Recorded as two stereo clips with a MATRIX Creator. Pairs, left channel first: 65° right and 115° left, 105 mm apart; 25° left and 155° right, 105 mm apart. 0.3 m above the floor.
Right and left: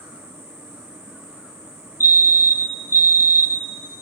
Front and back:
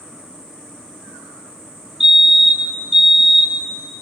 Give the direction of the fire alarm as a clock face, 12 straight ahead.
2 o'clock.